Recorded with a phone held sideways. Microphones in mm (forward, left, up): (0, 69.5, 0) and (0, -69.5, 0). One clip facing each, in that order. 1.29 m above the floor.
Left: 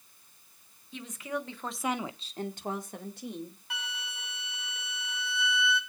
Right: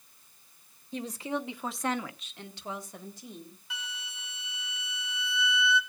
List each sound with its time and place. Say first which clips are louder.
0.9 s a woman speaking: right 3 dB; 40° right (ahead or behind), 1.6 m; by 3.6 s 70° left (ahead or behind), 2.5 m
3.7 s a flute: left 3 dB; 55° left (ahead or behind), 2 m